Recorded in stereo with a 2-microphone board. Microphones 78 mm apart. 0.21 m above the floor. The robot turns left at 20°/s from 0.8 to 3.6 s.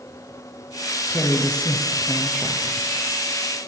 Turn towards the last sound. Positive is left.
turn(degrees=-30)